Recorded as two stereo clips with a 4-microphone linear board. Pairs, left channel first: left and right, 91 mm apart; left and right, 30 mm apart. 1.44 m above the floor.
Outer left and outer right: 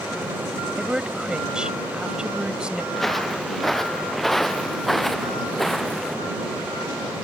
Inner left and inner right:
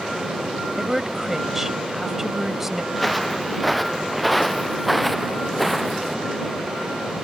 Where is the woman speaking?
10° right (ahead or behind).